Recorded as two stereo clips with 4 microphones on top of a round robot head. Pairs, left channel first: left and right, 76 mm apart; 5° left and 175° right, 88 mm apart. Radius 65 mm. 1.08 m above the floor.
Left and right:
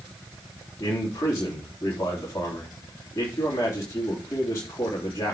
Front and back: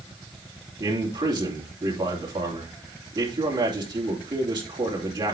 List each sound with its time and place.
0.8 s a man speaking: 150° left, 3 m